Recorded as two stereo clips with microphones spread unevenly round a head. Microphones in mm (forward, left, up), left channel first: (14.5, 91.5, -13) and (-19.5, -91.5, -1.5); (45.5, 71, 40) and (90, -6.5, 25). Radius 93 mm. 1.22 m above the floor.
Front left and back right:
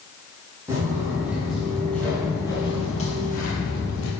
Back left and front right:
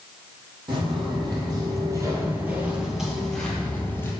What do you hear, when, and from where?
0.7 s footsteps: 30° right, 3 m; by 4.1 s 65° left, 2 m